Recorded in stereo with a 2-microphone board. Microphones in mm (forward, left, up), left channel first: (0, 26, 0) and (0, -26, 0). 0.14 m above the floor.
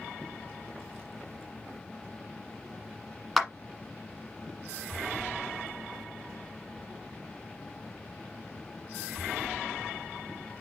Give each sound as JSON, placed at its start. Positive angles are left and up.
{"t": 3.4, "sound": "a clap", "side_deg": 5, "distance_m": 1.2}